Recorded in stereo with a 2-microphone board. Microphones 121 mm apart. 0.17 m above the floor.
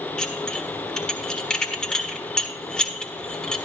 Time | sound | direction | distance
0.2 | dishes clattering | 5° left (ahead or behind) | 1.5 m